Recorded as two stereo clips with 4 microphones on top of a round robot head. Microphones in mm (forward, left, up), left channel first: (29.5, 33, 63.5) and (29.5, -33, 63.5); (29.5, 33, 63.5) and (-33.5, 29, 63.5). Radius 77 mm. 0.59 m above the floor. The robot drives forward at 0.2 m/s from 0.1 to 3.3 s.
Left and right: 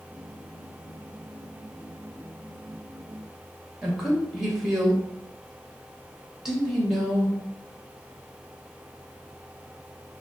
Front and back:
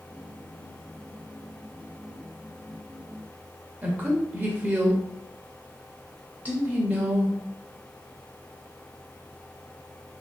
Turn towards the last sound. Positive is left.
turn(degrees=-165)